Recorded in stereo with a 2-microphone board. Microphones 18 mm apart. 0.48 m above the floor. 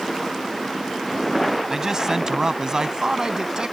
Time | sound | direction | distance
1.7 | a man speaking | 35° right (ahead or behind) | ?